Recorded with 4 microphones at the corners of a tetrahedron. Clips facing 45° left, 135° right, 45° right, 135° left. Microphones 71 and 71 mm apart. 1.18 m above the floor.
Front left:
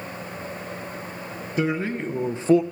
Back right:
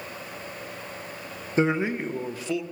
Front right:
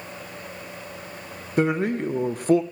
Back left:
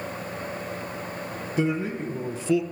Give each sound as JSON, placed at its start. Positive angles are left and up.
{"t": 1.6, "sound": "a man speaking", "azimuth_deg": -75, "distance_m": 0.8}